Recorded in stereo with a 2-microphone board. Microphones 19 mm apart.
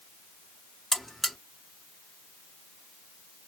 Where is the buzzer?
5° left (ahead or behind), 1.2 m.